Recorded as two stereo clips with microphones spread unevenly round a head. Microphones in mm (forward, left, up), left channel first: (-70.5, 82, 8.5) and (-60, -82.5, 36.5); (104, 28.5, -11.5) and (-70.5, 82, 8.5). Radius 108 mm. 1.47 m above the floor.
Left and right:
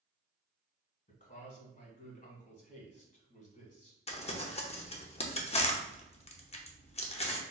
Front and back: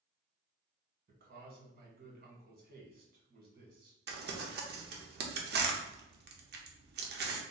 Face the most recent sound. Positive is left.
turn(degrees=135)